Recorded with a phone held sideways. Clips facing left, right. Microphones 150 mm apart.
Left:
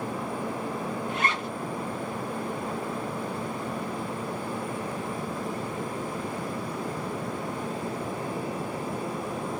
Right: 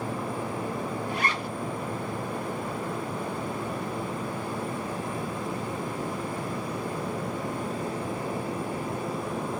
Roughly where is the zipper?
Left.